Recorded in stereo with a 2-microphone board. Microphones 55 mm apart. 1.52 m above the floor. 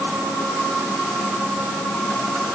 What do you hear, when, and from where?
Only background noise.